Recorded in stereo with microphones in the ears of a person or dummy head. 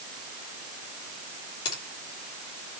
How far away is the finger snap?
About 3 m.